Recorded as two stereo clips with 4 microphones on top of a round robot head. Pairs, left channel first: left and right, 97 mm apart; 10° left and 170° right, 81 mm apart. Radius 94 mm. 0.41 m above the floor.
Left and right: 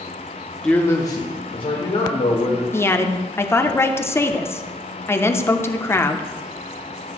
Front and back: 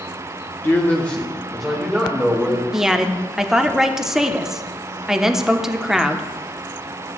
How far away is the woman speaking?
About 0.8 m.